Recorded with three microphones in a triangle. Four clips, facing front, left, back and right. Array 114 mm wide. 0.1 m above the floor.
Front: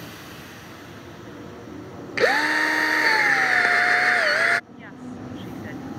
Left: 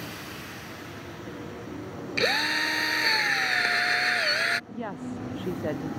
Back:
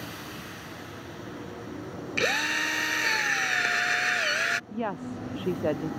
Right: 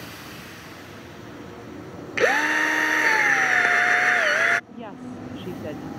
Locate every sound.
2.2 s a drill: 40° right
4.7 s a woman speaking: 170° left